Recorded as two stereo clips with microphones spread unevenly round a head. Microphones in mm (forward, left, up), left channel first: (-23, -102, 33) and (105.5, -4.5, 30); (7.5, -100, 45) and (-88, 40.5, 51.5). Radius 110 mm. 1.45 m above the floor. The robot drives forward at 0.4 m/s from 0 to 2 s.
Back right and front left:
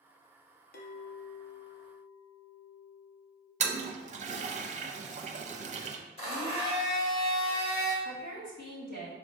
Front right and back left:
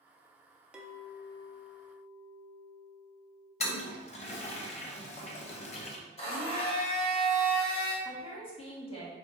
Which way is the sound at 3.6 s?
5° right.